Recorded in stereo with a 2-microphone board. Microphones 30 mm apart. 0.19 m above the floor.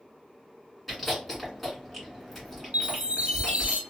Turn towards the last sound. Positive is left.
turn(degrees=-60)  # may be behind; listen again after turning